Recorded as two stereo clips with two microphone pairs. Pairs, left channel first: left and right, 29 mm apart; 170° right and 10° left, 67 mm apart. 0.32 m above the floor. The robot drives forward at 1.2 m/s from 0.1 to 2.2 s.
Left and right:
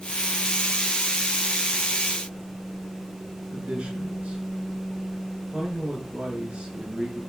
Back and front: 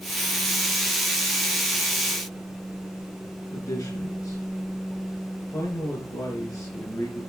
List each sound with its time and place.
3.5 s a man speaking: 140° right, 4 m